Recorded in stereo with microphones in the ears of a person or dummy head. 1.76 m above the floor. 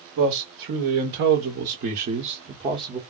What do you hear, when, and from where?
0.2 s a man speaking: 80° right, 1.8 m; by 3.0 s 20° right (ahead or behind), 1.0 m